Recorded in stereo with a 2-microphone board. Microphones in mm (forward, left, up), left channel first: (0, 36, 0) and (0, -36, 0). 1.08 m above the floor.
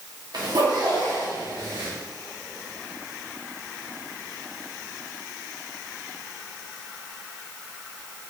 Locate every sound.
0.3 s a zipper: 65° right (ahead or behind), 1.3 m